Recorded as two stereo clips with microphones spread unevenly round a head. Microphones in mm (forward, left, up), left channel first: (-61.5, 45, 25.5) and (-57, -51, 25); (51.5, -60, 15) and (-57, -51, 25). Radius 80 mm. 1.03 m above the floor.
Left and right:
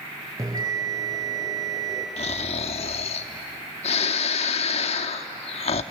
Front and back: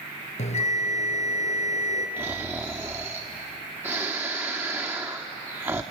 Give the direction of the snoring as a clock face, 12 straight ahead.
9 o'clock.